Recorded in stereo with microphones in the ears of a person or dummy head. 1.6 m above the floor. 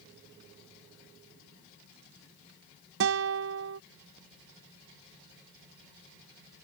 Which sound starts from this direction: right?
A guitar, at 3.0 s.